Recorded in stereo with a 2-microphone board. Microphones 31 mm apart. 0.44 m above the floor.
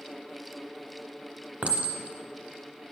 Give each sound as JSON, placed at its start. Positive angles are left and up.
{"t": 1.6, "sound": "a clink", "side_deg": -55, "distance_m": 0.8}